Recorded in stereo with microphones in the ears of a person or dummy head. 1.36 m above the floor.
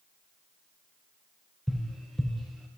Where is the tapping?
Centre (ahead or behind), 0.9 m.